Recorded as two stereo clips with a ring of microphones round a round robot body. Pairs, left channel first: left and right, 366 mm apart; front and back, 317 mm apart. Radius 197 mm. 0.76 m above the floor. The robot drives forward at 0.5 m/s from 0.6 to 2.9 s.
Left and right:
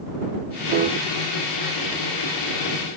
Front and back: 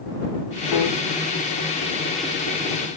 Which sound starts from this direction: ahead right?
A piano, at 0.7 s.